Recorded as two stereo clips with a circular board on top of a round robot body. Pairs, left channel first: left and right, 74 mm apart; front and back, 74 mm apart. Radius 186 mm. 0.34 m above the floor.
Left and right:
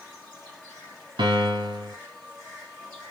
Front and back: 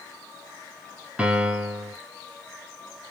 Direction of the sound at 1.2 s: 100° right.